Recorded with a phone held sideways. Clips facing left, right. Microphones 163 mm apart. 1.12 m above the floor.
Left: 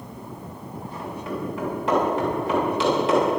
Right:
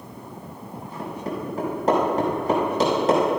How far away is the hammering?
About 6.5 m.